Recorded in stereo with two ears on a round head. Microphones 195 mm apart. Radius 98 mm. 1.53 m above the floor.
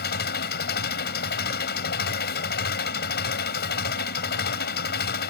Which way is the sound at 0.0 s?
50° left (ahead or behind).